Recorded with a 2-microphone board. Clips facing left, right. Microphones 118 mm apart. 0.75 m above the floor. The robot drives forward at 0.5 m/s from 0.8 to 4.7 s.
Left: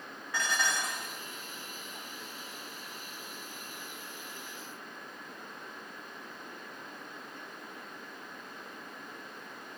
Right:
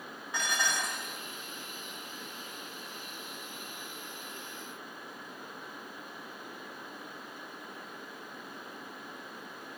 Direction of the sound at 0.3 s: 20° right (ahead or behind).